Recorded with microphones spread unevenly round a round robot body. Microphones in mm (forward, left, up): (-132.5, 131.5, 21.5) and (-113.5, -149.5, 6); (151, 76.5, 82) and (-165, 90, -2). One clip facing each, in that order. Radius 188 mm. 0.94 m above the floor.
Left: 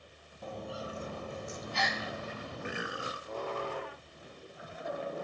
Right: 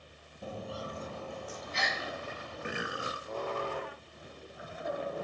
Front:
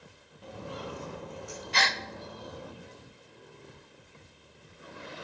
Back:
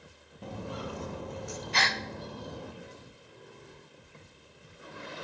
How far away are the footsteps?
About 1.0 m.